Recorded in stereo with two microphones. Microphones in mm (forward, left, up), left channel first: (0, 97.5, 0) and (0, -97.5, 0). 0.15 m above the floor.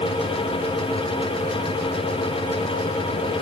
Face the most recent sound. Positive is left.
No sound to turn to.